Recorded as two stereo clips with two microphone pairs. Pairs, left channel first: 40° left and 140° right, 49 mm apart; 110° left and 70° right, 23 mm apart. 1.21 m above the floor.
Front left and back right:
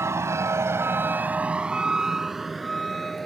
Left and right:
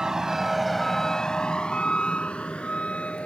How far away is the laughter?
No laughter in this recording.